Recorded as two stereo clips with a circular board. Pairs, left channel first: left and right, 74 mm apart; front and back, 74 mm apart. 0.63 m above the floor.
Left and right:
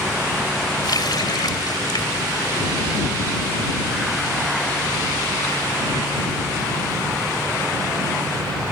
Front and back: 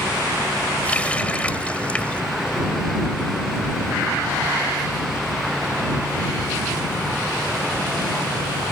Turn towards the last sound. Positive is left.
turn(degrees=70)